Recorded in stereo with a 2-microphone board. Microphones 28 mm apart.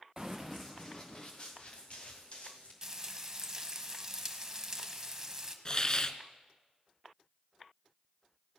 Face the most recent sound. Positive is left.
turn(degrees=30)  # may be behind; listen again after turning